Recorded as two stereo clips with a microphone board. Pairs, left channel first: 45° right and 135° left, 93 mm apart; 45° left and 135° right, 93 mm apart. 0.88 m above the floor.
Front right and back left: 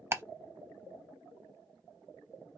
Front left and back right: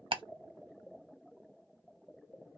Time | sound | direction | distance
0.1 | ticking | 160° right | 0.5 m